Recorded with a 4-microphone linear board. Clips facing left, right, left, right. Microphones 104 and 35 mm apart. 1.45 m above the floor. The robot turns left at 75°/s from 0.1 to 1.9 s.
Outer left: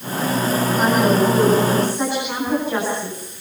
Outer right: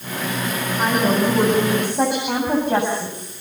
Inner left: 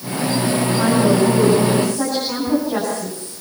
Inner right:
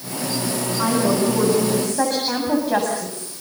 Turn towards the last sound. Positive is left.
turn(degrees=-55)